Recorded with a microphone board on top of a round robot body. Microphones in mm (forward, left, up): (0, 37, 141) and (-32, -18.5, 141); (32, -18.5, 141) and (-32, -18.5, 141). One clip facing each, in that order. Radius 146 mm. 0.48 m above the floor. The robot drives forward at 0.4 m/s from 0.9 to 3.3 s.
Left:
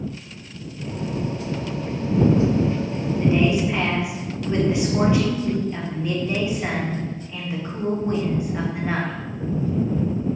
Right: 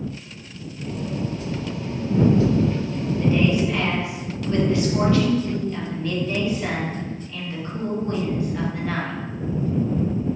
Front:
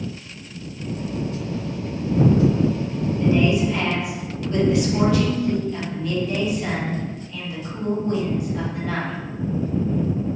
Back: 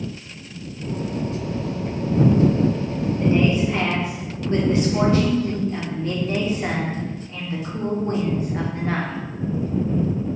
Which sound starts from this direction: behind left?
A woman speaking, at 3.2 s.